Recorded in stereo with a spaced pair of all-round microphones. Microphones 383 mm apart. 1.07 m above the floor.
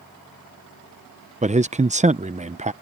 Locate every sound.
1.4 s a man speaking: 20° right (ahead or behind)